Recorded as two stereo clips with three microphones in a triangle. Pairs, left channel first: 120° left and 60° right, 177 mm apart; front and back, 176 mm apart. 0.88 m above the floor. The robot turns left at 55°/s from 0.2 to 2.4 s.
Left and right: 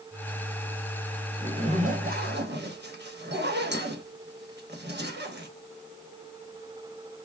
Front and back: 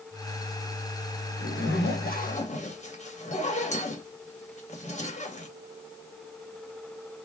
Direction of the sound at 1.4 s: 5° left.